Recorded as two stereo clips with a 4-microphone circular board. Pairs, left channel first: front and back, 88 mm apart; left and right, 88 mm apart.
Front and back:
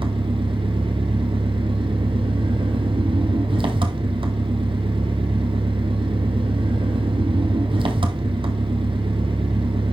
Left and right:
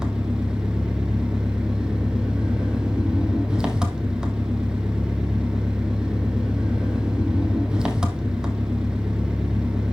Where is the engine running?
170° right, 1.2 m.